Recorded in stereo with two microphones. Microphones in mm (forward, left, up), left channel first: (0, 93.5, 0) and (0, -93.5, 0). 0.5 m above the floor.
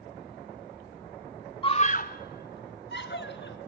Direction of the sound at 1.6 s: 25° left (ahead or behind).